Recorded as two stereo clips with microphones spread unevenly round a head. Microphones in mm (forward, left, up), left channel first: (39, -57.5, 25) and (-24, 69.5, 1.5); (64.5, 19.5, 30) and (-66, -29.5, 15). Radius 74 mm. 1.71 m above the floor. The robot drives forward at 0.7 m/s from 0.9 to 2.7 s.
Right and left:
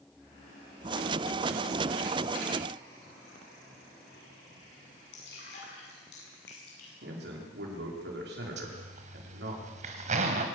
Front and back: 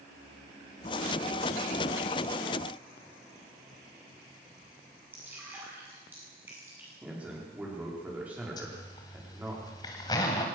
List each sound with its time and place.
5.1 s dripping: 80° right, 9.5 m
7.0 s a man speaking: 120° left, 5.5 m
8.6 s a zipper: 75° left, 2.5 m